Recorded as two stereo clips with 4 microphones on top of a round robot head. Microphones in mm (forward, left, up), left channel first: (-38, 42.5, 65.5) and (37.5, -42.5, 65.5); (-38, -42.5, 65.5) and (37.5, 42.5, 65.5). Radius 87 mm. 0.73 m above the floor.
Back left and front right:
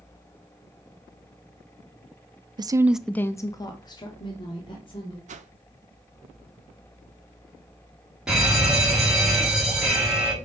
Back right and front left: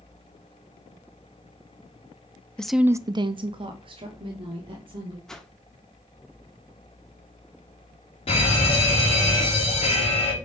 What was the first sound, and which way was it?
A woman speaking, 55° right.